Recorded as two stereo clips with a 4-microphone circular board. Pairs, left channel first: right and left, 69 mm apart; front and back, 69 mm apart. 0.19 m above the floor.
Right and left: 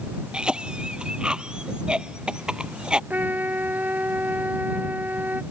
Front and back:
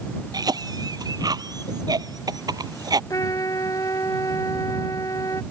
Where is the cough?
165° left.